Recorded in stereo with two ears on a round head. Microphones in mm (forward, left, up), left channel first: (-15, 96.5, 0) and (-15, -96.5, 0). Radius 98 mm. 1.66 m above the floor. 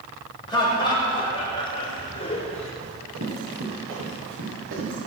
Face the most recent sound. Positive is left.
turn(degrees=-65)  # may be behind; listen again after turning